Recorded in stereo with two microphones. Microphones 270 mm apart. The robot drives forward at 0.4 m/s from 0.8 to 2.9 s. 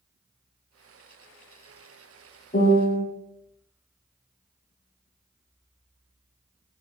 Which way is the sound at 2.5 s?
35° left (ahead or behind).